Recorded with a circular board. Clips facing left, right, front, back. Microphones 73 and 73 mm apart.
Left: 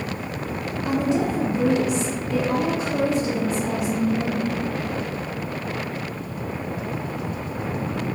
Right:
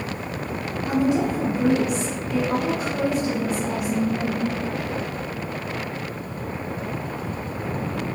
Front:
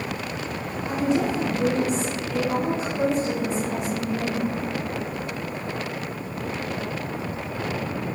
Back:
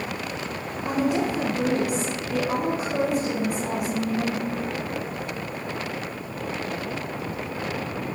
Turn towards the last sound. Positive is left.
turn(degrees=145)